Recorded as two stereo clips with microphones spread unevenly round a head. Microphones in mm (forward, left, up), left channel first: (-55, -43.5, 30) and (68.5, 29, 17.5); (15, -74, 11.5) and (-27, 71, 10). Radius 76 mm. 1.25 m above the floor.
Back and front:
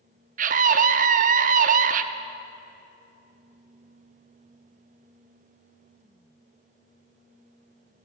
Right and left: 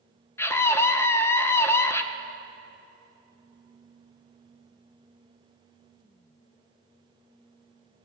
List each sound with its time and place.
0.4 s a scream: straight ahead, 0.7 m